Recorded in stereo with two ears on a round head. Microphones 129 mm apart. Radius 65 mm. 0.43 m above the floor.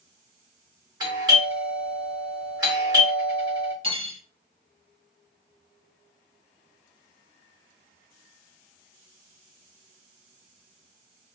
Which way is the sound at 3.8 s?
40° right (ahead or behind).